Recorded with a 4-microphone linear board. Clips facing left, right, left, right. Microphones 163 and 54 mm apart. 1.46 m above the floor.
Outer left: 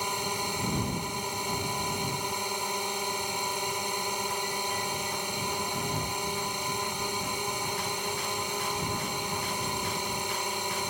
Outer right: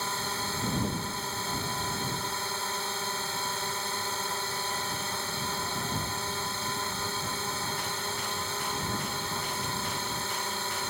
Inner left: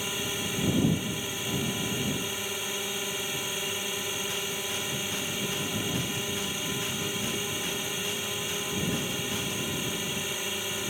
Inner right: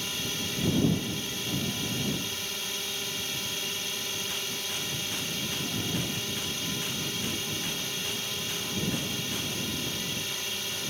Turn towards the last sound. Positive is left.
turn(degrees=15)  # may be behind; listen again after turning